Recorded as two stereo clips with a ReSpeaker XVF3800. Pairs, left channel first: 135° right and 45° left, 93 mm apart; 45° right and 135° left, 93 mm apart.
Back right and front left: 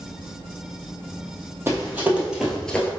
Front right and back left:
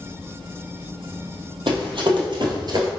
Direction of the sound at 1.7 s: 110° left.